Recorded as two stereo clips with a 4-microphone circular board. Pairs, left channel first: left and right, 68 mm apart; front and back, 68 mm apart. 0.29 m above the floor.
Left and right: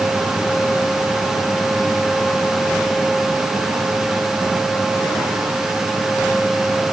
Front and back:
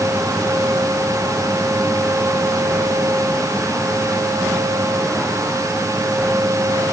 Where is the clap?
No clap in this recording.